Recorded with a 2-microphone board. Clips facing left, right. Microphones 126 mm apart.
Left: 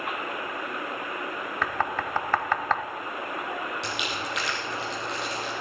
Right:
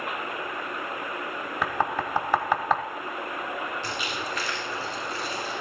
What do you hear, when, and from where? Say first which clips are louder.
1.6 s knocking: right 2 dB; 10° right (ahead or behind), 0.9 m
3.8 s crumpling: even; 80° left, 4.5 m